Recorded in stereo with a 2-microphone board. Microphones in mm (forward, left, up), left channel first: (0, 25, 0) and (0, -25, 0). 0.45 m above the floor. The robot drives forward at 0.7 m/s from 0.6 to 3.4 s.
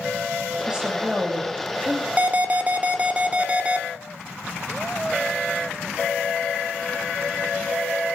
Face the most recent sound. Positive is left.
turn(degrees=-25)  # may be behind; listen again after turning